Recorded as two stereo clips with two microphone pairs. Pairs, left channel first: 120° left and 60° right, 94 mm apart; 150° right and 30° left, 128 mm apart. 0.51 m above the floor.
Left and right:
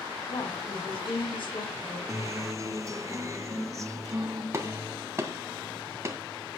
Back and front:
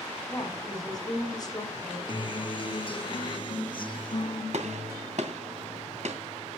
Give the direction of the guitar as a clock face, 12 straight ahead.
4 o'clock.